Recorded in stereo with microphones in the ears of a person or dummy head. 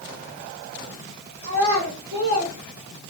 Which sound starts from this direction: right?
A child speaking, at 1.4 s.